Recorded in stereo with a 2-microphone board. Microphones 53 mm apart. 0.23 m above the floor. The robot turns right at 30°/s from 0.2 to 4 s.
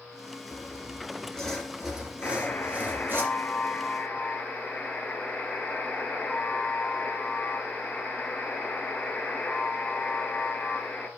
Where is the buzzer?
105° left, 1.8 m; by 11.1 s 160° left, 1.8 m.